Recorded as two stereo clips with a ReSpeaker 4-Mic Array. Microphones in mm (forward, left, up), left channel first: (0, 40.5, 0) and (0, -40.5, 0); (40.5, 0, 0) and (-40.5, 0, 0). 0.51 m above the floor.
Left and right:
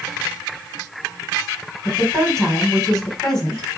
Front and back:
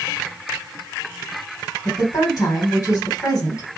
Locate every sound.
1.9 s a woman speaking: 5° left, 1.8 m